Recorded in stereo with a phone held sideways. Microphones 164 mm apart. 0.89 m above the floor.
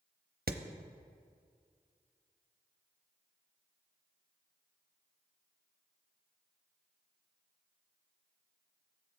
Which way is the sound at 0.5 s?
75° right (ahead or behind).